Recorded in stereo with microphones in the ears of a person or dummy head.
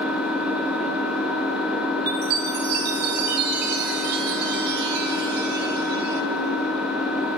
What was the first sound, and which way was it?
An engine running, 5° right (ahead or behind).